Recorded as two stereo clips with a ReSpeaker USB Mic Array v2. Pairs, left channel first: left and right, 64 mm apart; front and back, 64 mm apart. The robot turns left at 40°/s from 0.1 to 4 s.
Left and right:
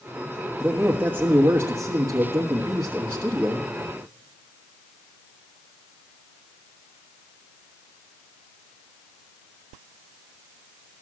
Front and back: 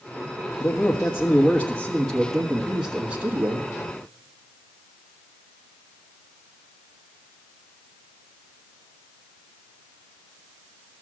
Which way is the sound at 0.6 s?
20° right.